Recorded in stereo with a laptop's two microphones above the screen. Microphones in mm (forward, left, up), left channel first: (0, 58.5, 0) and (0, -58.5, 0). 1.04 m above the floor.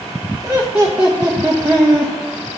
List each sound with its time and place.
0.4 s laughter: 15° right (ahead or behind), 0.9 m